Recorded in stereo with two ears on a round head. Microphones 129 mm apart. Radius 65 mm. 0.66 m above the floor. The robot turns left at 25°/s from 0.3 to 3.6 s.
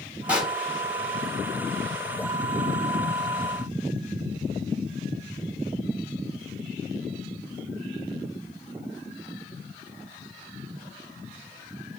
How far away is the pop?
About 2 m.